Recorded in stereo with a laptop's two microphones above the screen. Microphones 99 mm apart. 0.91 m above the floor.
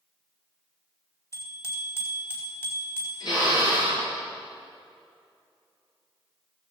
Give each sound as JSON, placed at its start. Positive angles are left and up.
{"t": 1.3, "sound": "a bicycle bell", "side_deg": 35, "distance_m": 3.0}
{"t": 3.2, "sound": "a drill", "side_deg": 45, "distance_m": 6.5}